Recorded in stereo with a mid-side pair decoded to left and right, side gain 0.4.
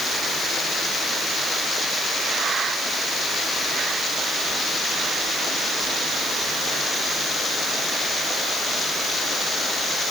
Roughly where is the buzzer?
I don't hear a buzzer.